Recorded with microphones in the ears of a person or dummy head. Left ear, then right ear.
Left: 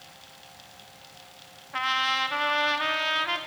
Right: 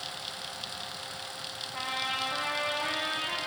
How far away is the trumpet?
About 0.7 m.